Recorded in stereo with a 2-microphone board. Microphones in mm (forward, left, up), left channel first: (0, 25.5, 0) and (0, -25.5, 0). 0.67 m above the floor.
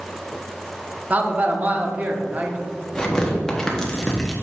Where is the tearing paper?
15° left (ahead or behind), 1.2 m.